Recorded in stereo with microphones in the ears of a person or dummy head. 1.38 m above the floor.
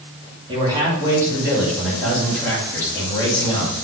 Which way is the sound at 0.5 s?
25° right (ahead or behind).